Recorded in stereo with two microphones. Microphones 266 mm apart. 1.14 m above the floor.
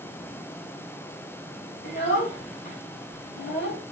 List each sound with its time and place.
1.8 s a child speaking: 35° left (ahead or behind), 1.5 m